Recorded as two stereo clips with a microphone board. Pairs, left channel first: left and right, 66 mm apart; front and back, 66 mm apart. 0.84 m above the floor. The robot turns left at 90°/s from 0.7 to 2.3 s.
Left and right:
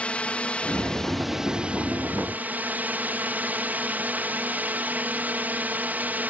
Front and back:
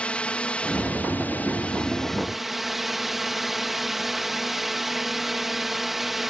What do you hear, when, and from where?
0.0 s a drone: 45° left; by 6.3 s 95° right